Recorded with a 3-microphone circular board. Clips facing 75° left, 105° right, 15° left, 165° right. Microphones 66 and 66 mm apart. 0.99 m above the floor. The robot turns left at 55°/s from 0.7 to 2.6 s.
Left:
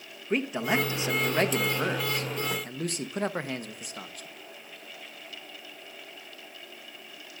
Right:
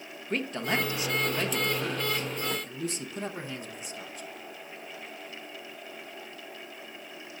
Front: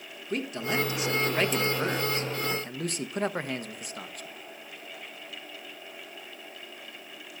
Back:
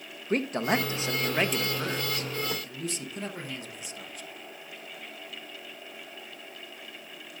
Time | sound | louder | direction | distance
0.3 | a man speaking | left 3 dB, back 4 dB | 150° left | 1.0 m